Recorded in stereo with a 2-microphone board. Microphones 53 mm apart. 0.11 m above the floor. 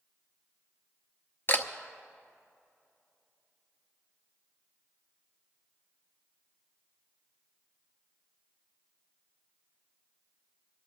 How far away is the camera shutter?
About 0.9 m.